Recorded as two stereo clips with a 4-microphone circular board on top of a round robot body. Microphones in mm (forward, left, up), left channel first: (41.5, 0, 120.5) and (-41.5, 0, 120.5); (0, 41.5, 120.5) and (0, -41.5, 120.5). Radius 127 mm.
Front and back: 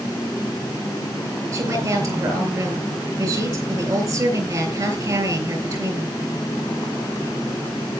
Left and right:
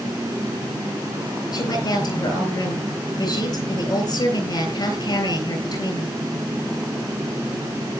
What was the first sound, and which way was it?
A woman speaking, 130° left.